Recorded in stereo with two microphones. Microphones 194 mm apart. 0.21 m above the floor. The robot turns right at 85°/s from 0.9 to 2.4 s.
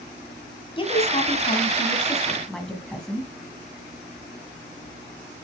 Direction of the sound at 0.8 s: 25° left (ahead or behind).